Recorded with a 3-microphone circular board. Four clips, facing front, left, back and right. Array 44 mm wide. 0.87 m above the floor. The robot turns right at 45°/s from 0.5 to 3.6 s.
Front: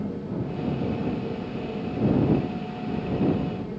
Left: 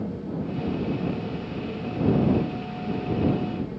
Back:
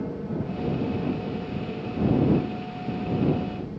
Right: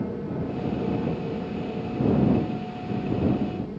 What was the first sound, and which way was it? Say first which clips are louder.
An aircraft: right 1 dB, even; 110° right.